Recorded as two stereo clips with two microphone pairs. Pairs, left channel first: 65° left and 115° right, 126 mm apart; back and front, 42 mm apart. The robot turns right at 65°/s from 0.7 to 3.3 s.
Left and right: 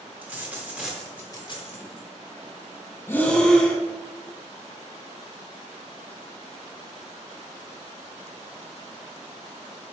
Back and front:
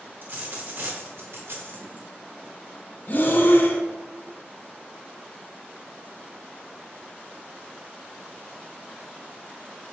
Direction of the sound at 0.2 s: 40° right.